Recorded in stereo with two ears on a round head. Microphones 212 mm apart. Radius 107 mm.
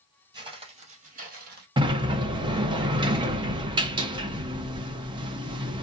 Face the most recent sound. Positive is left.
turn(degrees=-20)  # may be behind; listen again after turning